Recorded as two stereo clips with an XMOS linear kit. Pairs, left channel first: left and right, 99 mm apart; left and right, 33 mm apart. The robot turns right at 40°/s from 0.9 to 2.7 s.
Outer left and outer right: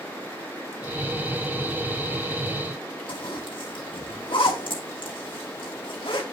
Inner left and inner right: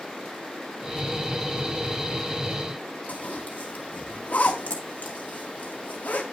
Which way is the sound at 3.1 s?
70° left (ahead or behind).